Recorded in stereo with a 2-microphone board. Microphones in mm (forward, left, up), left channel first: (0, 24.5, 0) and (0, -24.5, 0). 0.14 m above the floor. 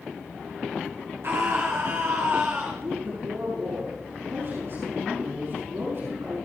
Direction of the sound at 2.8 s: 55° right (ahead or behind).